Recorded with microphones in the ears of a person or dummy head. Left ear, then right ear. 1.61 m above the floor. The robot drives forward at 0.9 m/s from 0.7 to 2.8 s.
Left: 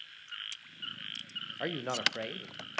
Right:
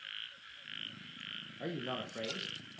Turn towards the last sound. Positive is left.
turn(degrees=20)  # may be behind; listen again after turning